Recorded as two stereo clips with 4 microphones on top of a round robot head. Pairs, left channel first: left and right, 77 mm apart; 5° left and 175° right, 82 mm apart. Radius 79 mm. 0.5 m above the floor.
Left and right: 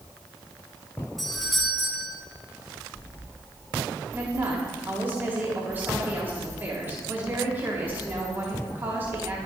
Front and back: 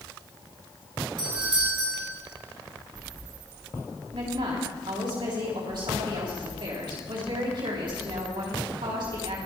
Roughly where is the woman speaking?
Behind right.